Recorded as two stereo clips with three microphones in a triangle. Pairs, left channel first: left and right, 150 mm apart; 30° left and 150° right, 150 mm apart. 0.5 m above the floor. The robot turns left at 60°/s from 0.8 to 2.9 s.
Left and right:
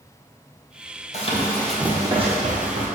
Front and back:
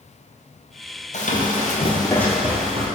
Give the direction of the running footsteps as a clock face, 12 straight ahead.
10 o'clock.